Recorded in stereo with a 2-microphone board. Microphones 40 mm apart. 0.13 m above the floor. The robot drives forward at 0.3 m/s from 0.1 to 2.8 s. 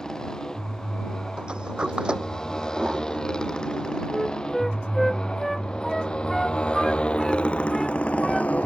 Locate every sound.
0.0 s a motorcycle: 10° left (ahead or behind); by 8.7 s 35° left (ahead or behind)
1.4 s a sliding door: 25° right (ahead or behind)
4.1 s a flute: 5° left (ahead or behind)